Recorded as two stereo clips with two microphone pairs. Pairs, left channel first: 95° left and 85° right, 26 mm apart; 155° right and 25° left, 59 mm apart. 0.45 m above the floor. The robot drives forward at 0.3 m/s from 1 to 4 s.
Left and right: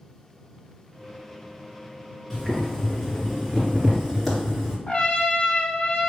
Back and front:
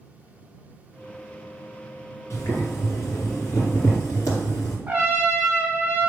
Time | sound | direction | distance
2.3 | boiling | 170° left | 2 m
4.9 | a trumpet | 80° left | 1.0 m